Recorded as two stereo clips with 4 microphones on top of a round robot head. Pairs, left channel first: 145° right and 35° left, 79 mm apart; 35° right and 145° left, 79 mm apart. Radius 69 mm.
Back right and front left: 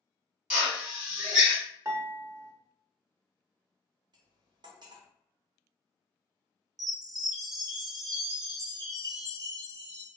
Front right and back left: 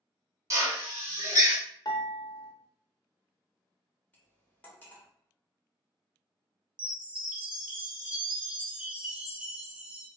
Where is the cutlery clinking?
35° left, 0.8 m.